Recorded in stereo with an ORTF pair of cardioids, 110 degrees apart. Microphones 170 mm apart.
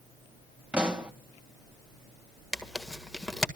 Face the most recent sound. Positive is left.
turn(degrees=0)